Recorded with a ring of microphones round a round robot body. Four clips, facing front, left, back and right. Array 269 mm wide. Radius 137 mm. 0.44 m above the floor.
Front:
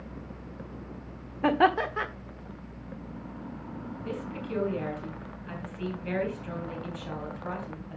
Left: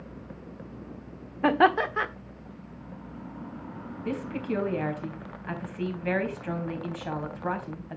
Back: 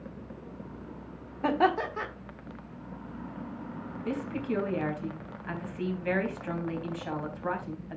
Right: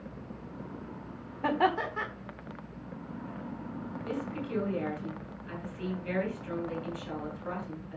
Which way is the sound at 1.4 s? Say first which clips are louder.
Left 6 dB, front 2 dB; 75° left.